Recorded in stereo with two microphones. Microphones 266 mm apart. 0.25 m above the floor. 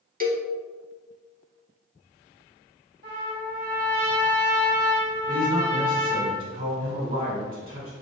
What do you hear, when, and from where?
0.2 s a cowbell: 30° right (ahead or behind), 0.5 m
3.0 s a trumpet: 35° right (ahead or behind), 1.4 m
5.3 s a man speaking: 35° right (ahead or behind), 1.9 m